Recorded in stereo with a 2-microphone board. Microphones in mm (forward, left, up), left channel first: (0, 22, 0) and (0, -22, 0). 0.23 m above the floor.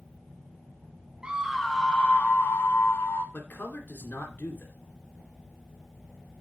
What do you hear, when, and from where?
1.2 s a scream: 20° right (ahead or behind), 0.9 m; by 3.2 s 60° left (ahead or behind), 1.9 m
3.3 s a man speaking: 45° left (ahead or behind), 2.5 m